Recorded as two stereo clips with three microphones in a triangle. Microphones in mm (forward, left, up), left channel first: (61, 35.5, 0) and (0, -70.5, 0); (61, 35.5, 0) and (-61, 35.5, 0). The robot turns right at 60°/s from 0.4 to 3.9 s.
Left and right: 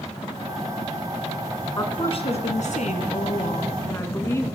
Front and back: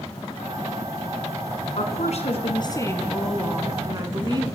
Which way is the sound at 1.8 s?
Straight ahead.